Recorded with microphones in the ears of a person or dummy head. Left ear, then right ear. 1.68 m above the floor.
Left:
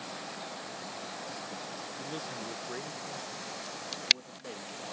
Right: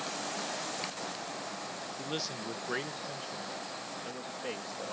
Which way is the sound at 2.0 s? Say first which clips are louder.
Right 4 dB; 30° right (ahead or behind).